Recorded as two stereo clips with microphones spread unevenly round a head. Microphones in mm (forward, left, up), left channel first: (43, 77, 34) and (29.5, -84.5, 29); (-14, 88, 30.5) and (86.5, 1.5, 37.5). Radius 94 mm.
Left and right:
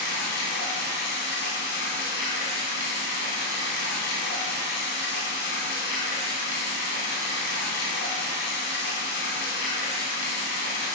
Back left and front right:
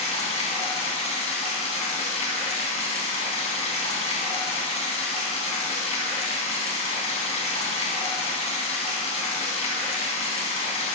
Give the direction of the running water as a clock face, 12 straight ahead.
8 o'clock.